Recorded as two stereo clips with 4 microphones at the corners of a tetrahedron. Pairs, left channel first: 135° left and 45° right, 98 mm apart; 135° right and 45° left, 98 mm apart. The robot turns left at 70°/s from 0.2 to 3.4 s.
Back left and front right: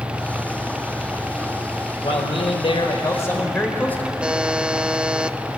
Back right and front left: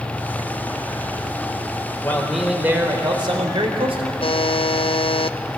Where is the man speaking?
160° left, 4 m; by 4.1 s 65° left, 4 m.